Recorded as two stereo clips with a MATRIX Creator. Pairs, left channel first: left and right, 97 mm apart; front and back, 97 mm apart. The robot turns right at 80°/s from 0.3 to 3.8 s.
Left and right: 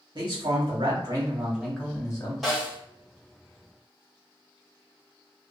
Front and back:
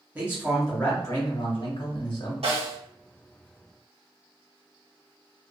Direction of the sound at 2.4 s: Straight behind.